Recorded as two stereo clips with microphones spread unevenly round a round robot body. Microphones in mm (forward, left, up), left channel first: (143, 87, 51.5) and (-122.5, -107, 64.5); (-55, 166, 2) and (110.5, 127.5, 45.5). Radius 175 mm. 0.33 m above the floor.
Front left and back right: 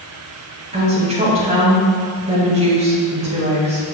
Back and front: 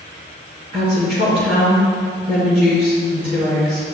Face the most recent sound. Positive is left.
turn(degrees=-75)